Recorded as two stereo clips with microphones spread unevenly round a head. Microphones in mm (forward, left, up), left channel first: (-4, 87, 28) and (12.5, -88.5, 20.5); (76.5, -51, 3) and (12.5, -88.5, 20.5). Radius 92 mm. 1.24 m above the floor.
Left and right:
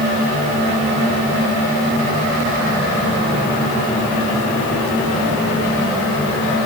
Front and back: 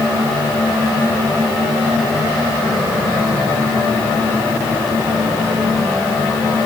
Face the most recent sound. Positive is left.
No sound to turn to.